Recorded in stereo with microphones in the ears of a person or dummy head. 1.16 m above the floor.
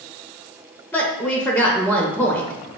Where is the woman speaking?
10° left (ahead or behind), 0.5 m.